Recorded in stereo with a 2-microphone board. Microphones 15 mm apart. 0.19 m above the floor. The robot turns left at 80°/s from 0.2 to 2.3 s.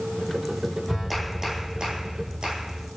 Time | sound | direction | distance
0.9 | a clap | 20° left | 9.5 m